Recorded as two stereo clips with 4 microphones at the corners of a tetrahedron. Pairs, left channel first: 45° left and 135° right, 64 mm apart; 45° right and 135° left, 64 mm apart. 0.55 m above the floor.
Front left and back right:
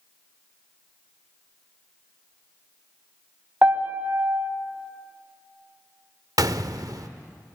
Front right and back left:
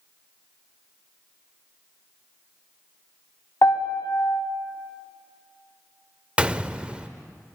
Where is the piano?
75° right, 1.5 m.